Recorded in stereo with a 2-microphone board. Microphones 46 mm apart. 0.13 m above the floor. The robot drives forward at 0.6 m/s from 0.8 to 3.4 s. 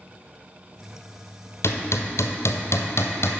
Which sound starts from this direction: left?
Hammering, at 1.6 s.